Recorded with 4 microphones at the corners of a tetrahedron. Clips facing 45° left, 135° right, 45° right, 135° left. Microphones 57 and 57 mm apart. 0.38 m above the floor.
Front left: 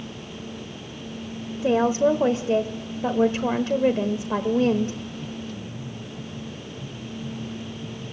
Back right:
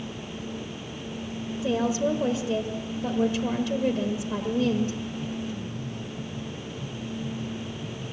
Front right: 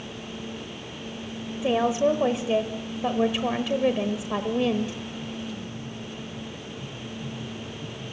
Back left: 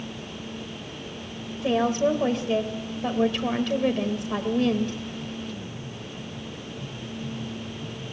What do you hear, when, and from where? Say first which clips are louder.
1.6 s a woman speaking: front left 6 dB, even; 30° left, 1.1 m